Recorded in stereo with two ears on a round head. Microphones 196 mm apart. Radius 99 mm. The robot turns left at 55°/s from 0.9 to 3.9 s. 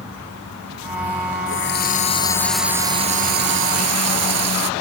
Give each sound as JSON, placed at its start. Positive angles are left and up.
{"t": 1.5, "sound": "a running tap", "azimuth_deg": 60}